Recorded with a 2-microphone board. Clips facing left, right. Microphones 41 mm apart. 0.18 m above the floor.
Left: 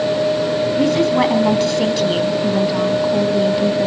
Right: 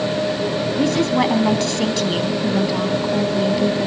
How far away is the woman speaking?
About 1.2 m.